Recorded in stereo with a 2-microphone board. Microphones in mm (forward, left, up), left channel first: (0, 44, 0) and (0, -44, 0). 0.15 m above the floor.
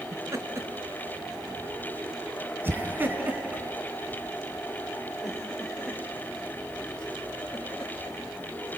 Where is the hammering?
I don't hear hammering.